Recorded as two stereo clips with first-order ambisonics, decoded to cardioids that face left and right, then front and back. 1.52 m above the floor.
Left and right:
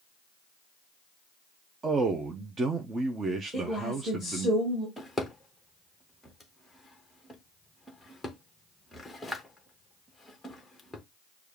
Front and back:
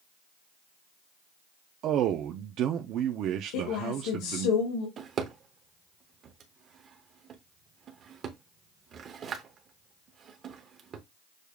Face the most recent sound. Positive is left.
turn(degrees=170)